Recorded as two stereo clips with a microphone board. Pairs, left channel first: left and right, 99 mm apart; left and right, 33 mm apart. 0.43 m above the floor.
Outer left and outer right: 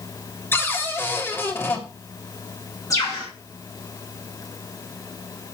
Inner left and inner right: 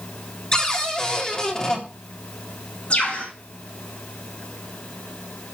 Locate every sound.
0.5 s a cupboard door: 20° left (ahead or behind), 2.5 m
2.9 s a bird: 35° left (ahead or behind), 7.5 m